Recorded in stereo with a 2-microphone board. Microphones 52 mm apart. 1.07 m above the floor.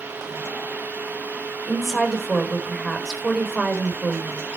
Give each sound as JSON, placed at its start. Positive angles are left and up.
{"t": 1.7, "sound": "a woman speaking", "side_deg": -5, "distance_m": 3.5}